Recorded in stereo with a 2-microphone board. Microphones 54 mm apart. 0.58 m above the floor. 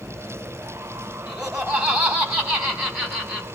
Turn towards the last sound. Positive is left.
turn(degrees=-15)  # may be behind; listen again after turning